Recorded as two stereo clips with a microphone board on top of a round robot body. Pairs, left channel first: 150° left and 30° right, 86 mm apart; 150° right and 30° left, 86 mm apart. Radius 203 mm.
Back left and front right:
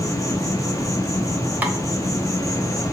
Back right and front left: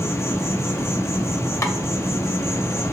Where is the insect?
170° left, 1.0 m.